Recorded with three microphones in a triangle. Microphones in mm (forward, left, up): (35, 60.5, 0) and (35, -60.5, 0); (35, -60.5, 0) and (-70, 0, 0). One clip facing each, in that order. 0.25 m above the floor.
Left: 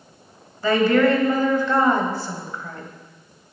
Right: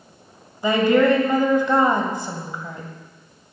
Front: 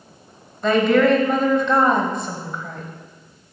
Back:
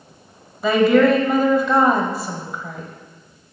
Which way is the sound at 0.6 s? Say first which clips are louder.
Right 1 dB, back 2 dB; 130° right.